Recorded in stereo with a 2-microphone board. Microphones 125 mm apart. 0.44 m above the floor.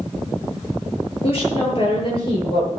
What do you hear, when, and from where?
1.2 s a woman speaking: 50° left (ahead or behind), 9 m; by 2.7 s 45° left (ahead or behind), 8.5 m